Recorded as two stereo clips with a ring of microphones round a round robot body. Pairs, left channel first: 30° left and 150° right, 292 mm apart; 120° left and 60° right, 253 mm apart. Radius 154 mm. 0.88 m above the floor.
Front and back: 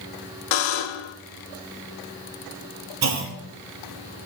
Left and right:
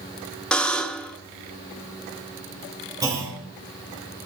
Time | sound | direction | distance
0.5 | a buzzer | 35° left | 0.9 m
3.0 | a clunk | 135° right | 1.6 m